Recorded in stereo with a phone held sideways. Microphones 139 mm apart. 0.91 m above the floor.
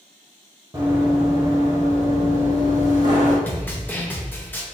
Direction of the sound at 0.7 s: 35° right (ahead or behind).